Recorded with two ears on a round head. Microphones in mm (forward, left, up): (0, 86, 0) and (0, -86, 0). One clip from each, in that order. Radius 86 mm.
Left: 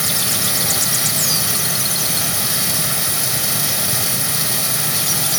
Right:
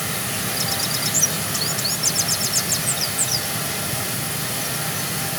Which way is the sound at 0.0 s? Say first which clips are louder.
Left 6 dB; 80° left.